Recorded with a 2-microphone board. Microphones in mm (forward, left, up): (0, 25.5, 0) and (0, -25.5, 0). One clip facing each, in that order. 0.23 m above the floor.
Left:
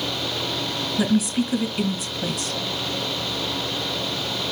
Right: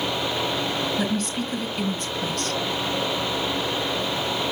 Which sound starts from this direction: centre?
A woman speaking, at 1.0 s.